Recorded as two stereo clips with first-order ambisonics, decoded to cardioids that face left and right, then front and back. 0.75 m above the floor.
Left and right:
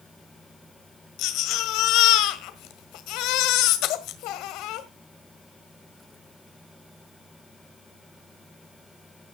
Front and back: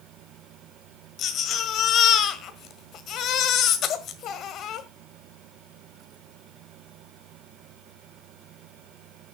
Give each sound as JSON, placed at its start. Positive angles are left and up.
{"t": 1.2, "sound": "a baby crying", "azimuth_deg": 55, "distance_m": 1.6}